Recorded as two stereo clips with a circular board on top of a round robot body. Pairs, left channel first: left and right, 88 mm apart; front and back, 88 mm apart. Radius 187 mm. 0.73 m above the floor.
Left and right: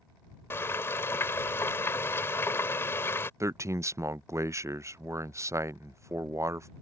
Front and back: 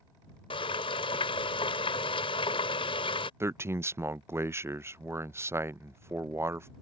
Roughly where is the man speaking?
Behind right.